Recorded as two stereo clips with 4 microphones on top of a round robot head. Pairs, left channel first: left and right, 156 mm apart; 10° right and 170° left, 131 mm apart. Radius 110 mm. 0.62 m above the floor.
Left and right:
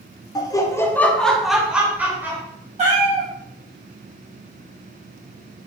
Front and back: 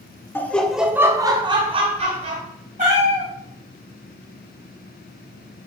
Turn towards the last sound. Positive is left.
turn(degrees=-135)